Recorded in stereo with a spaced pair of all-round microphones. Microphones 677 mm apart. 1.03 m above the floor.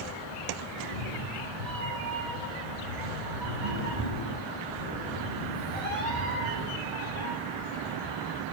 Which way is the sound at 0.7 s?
65° right (ahead or behind).